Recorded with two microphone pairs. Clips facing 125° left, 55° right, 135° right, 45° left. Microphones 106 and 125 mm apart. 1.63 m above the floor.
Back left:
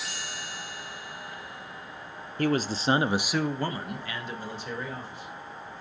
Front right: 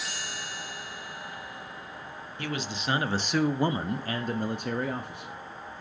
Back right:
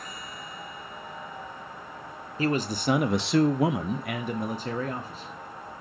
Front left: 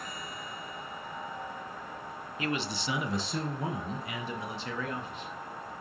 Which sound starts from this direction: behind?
A man speaking, at 2.4 s.